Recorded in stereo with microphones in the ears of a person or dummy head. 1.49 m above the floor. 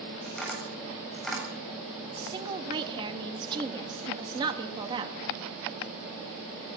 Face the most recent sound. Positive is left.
turn(degrees=-25)  # may be behind; listen again after turning